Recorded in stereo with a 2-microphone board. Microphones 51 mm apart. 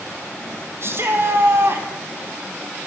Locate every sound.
0.8 s a shout: 50° right (ahead or behind), 3.5 m